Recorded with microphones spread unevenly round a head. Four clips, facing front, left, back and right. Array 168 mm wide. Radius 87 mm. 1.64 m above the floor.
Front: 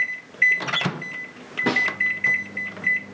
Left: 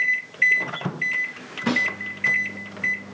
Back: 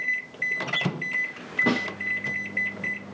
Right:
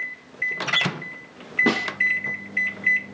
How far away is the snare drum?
About 1.9 m.